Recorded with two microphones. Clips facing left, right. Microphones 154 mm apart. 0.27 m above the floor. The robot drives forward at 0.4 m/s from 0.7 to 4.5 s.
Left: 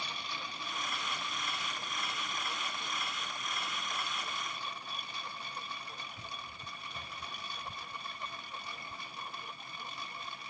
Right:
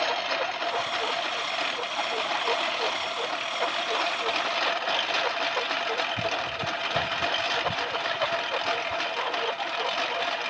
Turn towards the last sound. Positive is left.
turn(degrees=-85)